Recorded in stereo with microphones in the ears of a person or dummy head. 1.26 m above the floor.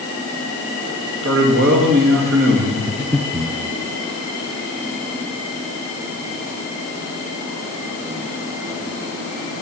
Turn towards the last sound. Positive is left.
turn(degrees=5)  # may be behind; listen again after turning